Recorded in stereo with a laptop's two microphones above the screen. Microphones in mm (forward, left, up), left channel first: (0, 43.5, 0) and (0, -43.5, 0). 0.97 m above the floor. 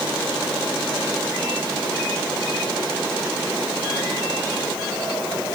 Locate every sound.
Only background noise.